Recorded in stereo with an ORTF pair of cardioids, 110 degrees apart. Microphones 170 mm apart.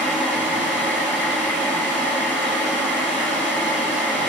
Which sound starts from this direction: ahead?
A fan, at 0.0 s.